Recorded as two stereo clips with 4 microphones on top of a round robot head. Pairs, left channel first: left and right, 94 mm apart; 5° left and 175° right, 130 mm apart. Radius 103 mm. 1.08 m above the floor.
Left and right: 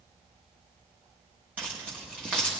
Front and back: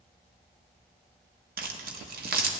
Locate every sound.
1.6 s keys jangling: 170° right, 1.0 m